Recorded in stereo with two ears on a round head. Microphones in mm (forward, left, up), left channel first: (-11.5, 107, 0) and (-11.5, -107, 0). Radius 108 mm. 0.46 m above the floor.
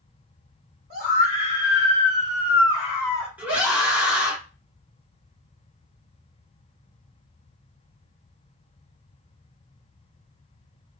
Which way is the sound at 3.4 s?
5° right (ahead or behind).